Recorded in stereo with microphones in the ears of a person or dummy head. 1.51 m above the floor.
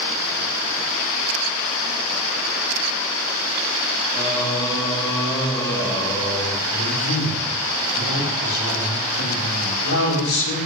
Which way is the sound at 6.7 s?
80° left.